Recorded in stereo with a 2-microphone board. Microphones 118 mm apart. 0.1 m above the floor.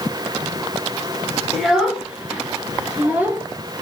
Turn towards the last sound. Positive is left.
turn(degrees=-15)  # may be behind; listen again after turning